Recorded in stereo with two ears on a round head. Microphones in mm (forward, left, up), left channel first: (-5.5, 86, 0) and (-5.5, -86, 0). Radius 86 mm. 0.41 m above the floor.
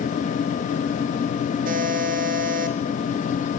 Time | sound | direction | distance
1.6 | a buzzer | 45° right (ahead or behind) | 4 m